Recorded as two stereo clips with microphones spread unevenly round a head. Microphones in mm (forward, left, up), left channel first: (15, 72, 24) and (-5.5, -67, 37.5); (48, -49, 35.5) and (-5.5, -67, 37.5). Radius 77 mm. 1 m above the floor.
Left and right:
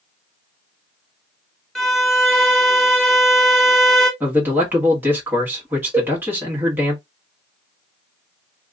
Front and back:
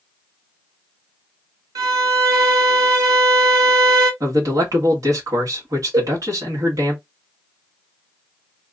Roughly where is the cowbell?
Behind.